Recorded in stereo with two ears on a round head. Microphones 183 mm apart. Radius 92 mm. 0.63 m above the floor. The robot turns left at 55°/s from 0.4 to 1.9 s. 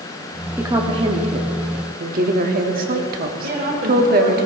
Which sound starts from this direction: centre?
A woman speaking, at 0.6 s.